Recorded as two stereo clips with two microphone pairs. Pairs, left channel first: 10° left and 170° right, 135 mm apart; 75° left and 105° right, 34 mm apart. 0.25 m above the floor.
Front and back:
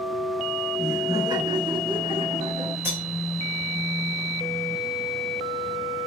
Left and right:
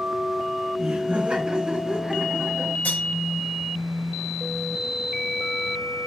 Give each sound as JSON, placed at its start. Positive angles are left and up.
{"t": 0.8, "sound": "laughter", "azimuth_deg": -120, "distance_m": 1.2}
{"t": 2.9, "sound": "cutlery clinking", "azimuth_deg": 115, "distance_m": 2.5}